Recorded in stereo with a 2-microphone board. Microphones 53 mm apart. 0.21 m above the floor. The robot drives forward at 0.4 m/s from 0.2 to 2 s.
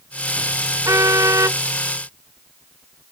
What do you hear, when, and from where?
0.8 s a car horn: 90° right; by 1.6 s 85° right